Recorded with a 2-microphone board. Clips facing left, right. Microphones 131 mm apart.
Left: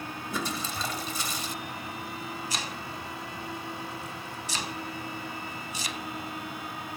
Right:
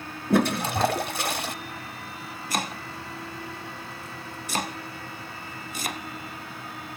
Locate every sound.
0.3 s a toilet flushing: 65° right (ahead or behind), 0.9 m
2.5 s chopping: 50° right (ahead or behind), 1.3 m